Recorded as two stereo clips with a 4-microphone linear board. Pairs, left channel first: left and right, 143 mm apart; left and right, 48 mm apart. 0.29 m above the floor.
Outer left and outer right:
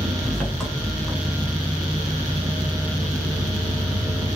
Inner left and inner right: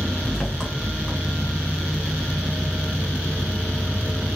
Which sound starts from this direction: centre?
An engine running, at 0.0 s.